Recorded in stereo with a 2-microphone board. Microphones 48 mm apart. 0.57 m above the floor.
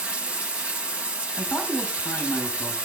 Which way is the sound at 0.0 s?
25° right (ahead or behind).